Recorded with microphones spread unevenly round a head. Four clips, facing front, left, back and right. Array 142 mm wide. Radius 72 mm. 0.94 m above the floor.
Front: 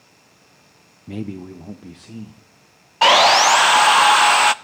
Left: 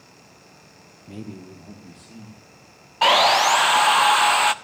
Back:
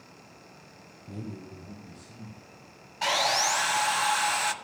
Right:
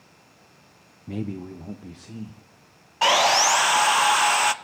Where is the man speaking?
20° right, 0.7 m.